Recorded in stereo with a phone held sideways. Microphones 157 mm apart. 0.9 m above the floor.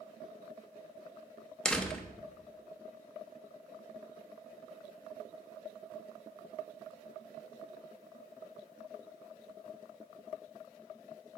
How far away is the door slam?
About 0.6 m.